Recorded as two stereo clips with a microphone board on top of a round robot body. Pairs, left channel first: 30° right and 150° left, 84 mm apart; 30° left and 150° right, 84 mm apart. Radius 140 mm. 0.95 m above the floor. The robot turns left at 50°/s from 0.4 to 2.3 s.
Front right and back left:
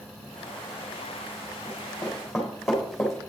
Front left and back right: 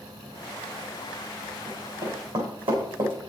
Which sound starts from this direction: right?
Running footsteps, at 1.7 s.